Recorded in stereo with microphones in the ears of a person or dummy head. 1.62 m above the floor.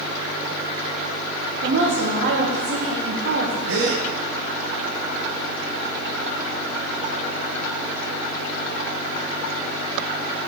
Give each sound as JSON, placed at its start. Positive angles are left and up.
{"t": 1.6, "sound": "a woman speaking", "side_deg": -55, "distance_m": 1.6}
{"t": 3.7, "sound": "a gasp", "side_deg": -70, "distance_m": 1.5}